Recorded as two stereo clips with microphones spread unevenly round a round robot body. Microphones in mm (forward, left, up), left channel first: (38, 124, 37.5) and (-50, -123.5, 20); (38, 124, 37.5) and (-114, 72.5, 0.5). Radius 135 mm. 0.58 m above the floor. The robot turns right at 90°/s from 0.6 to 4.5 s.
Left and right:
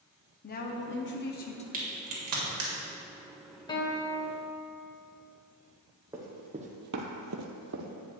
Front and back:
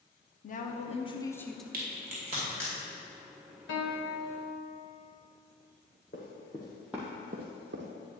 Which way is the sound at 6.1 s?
30° right.